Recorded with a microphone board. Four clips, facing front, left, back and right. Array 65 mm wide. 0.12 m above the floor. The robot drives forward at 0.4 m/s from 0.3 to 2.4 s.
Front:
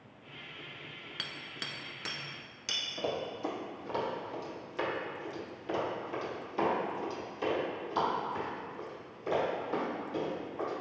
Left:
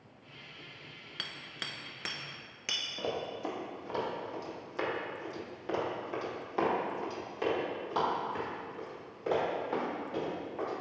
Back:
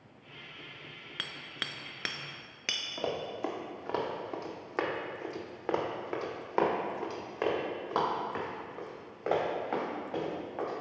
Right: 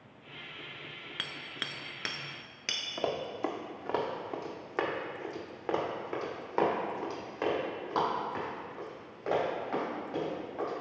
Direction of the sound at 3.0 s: 105° right.